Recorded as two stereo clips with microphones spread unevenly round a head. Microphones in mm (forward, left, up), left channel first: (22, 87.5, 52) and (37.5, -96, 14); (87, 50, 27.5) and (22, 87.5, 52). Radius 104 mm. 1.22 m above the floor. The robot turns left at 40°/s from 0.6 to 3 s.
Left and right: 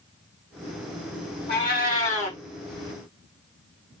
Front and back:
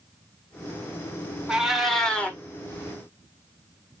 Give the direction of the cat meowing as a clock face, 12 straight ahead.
9 o'clock.